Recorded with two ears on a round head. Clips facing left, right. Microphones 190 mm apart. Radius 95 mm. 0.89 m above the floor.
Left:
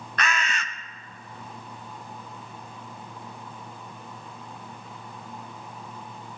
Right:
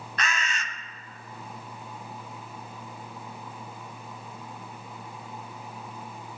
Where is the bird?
50° left (ahead or behind), 0.6 m.